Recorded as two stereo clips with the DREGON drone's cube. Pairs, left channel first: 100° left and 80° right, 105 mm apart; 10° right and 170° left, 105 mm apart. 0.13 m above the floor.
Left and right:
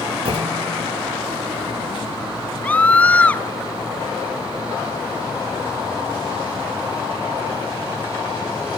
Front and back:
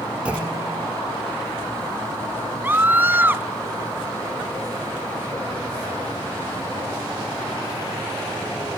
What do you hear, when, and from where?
0.2 s a clunk: 110° right, 7.5 m
2.6 s a scream: 140° left, 1.1 m